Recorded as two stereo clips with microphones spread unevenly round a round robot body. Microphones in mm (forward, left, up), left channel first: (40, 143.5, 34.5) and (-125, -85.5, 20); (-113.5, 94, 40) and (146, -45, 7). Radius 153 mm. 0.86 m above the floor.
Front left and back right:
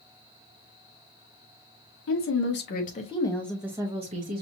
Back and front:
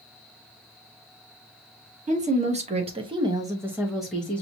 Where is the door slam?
I don't hear a door slam.